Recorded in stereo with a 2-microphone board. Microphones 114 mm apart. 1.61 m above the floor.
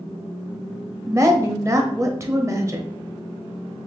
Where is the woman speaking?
25° right (ahead or behind), 0.8 m.